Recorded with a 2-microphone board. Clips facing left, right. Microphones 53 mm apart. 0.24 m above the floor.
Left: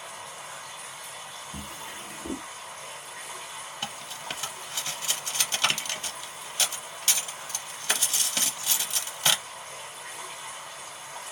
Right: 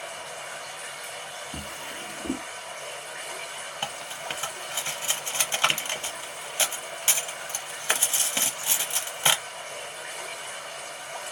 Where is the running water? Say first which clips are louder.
Right 4 dB; 75° right (ahead or behind), 1.8 m.